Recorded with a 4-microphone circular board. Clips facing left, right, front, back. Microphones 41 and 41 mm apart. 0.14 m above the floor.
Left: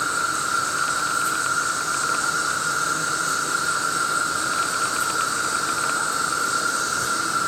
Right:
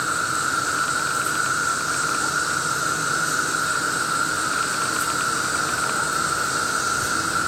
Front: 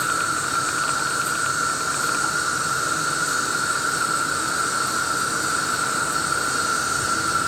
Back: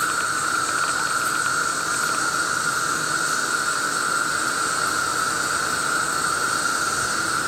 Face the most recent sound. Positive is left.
turn(degrees=-170)